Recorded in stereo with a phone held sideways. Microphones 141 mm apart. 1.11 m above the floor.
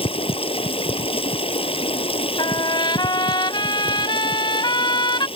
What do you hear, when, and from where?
0.0 s running water: 40° left (ahead or behind)
2.4 s a trumpet: 35° left (ahead or behind)